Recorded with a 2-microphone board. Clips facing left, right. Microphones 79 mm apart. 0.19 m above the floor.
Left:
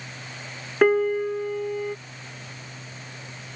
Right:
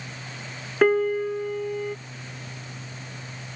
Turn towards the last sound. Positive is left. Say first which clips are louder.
# left 1 dB
turn(degrees=5)  # may be behind; listen again after turning